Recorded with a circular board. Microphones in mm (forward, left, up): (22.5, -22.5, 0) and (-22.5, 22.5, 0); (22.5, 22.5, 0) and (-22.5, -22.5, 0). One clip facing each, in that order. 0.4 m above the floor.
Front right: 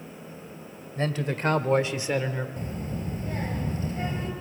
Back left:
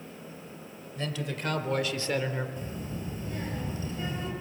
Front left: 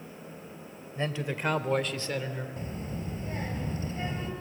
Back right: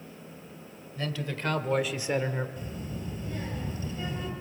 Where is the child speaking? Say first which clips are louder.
Front right 3 dB, front left 1 dB; straight ahead, 4.5 m.